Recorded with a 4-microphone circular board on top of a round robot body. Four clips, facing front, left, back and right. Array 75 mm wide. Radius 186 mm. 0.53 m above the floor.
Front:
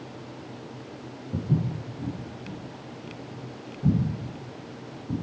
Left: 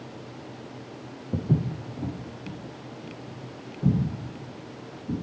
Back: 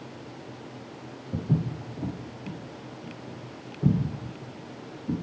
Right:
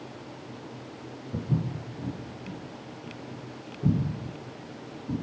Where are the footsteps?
95° left, 1.1 m; by 5.1 s 175° left, 4 m.